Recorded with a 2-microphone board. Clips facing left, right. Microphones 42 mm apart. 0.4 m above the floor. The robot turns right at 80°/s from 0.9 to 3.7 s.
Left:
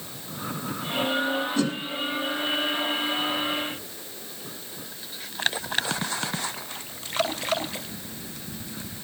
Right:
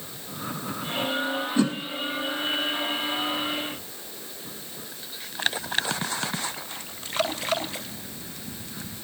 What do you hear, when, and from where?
1.6 s a whoosh: 15° right (ahead or behind), 0.9 m; by 1.8 s 30° right (ahead or behind), 0.9 m